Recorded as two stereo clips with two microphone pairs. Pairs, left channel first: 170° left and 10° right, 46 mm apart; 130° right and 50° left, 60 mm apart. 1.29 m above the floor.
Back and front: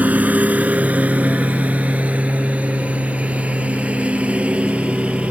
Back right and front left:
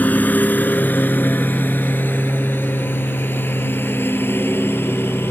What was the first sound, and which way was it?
A lawn mower, 70° right.